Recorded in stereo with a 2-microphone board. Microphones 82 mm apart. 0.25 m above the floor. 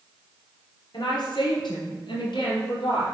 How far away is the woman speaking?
About 4 m.